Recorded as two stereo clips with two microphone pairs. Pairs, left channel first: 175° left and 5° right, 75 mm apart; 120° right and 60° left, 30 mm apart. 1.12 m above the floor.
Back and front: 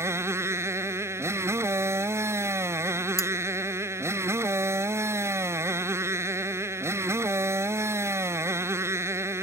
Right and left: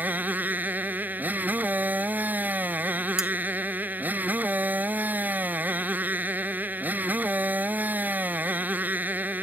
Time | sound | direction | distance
0.0 | a motorcycle | 45° left | ?
3.2 | cutlery clinking | 135° left | ?